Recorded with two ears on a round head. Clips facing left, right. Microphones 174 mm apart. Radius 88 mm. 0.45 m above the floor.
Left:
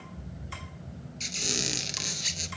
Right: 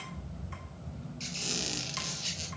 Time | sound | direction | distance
1.2 | a squeak | 25° left (ahead or behind) | 1.0 m